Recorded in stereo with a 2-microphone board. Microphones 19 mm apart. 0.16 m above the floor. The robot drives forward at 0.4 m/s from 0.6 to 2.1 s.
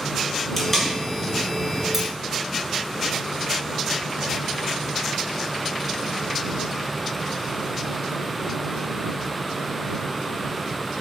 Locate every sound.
0.6 s tape being pulled: 15° left (ahead or behind), 1.5 m
1.9 s cutlery clinking: 20° right (ahead or behind), 0.6 m